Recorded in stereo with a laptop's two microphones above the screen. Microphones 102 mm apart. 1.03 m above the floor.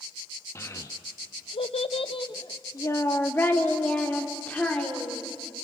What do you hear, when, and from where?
0.6 s a child speaking: 30° left (ahead or behind), 1.1 m; by 5.3 s 10° left (ahead or behind), 3 m